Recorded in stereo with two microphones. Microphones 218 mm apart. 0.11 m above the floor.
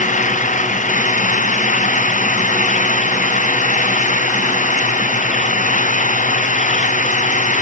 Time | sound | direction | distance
0.0 | an engine running | 35° left (ahead or behind) | ?